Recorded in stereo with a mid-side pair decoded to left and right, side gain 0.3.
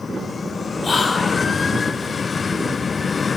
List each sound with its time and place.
0.8 s whispering: 50° left, 0.9 m